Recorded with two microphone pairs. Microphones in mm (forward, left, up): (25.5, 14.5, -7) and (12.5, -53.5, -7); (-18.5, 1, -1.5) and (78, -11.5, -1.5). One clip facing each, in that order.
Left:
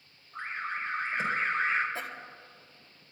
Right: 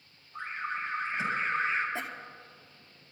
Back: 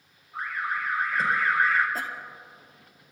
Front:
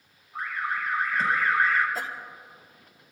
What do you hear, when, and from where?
0.3 s an alarm: 120° left, 5.5 m
1.9 s a cough: 165° right, 1.9 m